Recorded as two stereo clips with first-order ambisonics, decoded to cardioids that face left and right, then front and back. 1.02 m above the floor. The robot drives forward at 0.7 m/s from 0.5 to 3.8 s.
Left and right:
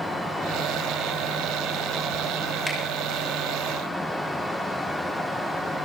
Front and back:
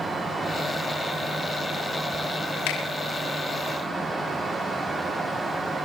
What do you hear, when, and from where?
2.7 s a finger snap: 5° left, 5.5 m